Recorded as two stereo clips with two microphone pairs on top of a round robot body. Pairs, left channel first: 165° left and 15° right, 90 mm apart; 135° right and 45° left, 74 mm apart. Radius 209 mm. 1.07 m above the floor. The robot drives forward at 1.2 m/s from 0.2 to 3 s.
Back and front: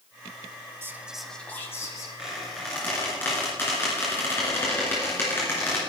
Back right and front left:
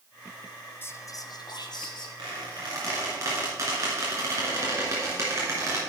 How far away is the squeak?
About 2 m.